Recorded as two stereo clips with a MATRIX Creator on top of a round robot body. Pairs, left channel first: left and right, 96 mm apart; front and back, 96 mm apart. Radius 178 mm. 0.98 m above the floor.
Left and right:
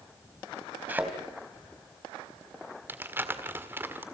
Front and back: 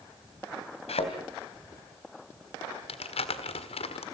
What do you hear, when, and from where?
0.9 s a thud: 15° right, 3 m
2.9 s crumpling: 20° right, 1.7 m